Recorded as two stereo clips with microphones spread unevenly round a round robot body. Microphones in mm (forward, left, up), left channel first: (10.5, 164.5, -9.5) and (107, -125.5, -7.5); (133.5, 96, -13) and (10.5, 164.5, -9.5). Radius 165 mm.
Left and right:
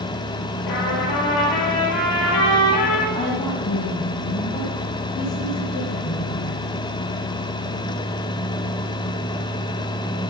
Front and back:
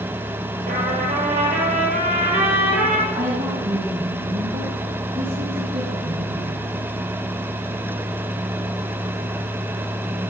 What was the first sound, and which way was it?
A trumpet, 145° left.